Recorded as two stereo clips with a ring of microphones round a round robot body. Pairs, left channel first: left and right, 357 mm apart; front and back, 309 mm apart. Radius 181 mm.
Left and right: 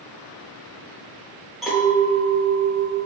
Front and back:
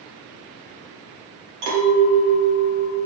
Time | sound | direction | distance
1.6 | a clink | straight behind | 1.3 m